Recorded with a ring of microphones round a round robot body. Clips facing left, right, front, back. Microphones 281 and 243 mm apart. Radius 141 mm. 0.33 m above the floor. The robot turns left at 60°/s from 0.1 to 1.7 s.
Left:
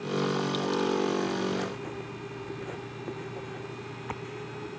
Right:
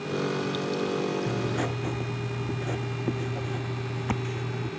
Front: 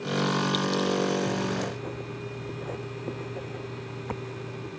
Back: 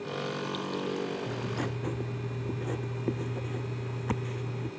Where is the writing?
95° right; by 4.7 s 120° right.